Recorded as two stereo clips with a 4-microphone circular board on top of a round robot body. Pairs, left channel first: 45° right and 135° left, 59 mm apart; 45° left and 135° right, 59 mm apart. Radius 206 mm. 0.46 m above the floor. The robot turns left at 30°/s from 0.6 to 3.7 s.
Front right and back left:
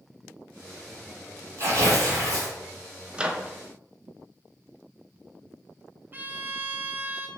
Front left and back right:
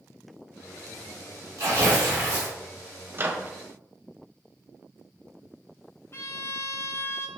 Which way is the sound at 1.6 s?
175° right.